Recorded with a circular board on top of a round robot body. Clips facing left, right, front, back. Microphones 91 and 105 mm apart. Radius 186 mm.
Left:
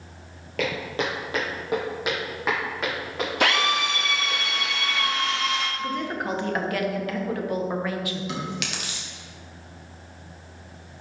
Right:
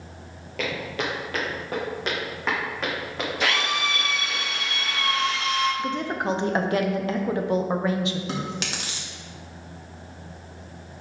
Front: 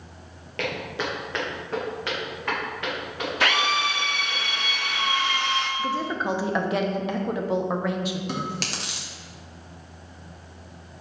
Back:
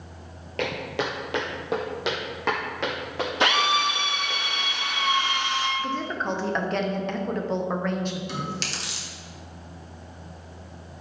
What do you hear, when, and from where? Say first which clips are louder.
0.6 s footsteps: left 2 dB, back 2 dB; 130° left, 0.8 m; by 4.4 s straight behind, 4.5 m
3.4 s a drill: left 3 dB, back 1 dB; 115° left, 1.6 m
5.8 s a woman speaking: right 2 dB, front 2 dB; 70° right, 1.0 m
8.3 s chewing: right 1 dB, front 2 dB; 35° right, 1.7 m